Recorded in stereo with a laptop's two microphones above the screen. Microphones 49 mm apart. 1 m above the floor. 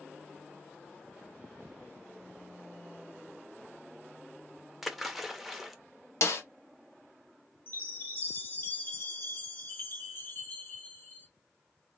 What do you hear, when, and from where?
4.8 s a splash: 5° right (ahead or behind), 0.7 m
6.2 s a snare drum: 65° left (ahead or behind), 0.9 m
7.7 s a chime: 40° left (ahead or behind), 1.1 m